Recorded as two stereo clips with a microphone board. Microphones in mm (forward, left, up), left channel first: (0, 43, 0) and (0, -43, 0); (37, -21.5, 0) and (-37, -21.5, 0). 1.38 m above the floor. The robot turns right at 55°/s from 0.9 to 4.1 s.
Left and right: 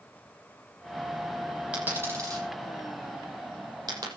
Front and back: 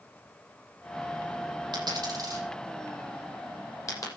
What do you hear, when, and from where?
1.7 s a dropped coin: 165° right, 8 m; by 4.1 s 40° right, 8 m